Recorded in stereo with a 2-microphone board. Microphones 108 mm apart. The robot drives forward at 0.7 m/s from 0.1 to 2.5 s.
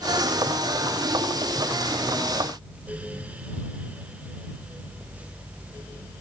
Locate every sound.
Only background noise.